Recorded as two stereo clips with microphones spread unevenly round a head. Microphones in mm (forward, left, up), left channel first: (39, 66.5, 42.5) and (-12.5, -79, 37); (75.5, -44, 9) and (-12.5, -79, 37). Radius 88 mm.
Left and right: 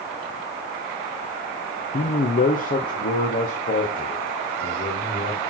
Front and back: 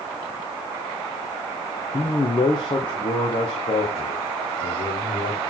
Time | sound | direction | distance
1.9 | a man speaking | 45° left | 0.6 m